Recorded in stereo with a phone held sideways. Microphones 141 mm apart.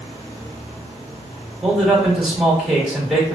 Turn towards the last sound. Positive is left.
turn(degrees=0)  # may be behind; listen again after turning